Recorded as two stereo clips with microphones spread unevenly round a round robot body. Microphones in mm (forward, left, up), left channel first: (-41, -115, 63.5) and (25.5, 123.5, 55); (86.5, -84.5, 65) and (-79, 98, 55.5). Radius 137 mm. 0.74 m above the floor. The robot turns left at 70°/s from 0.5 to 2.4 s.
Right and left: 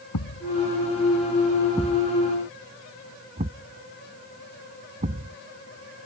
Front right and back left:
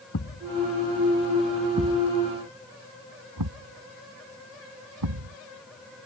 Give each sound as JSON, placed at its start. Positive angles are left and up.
{"t": 0.1, "sound": "a thud", "azimuth_deg": -90}